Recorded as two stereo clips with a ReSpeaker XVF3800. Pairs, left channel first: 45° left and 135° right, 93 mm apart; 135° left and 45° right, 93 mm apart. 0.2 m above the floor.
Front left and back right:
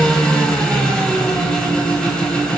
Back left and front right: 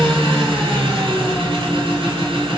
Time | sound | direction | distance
0.0 | an engine running | 40° right | 1.0 m